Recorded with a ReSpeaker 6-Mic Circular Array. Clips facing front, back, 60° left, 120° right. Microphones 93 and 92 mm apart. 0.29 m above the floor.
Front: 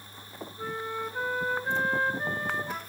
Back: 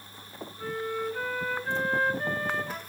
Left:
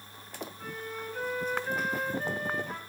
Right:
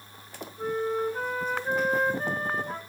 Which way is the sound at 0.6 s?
70° right.